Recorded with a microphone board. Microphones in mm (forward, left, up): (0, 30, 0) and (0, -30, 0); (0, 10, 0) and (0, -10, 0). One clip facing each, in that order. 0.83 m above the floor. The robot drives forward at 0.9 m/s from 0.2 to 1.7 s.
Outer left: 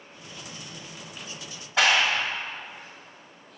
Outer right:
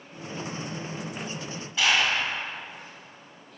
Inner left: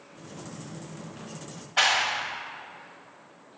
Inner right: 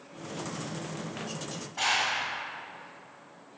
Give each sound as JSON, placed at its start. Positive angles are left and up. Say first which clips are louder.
{"t": 1.8, "sound": "a clap", "louder": "outer left 2 dB, inner left 4 dB", "side_deg": 80, "distance_m": 1.3}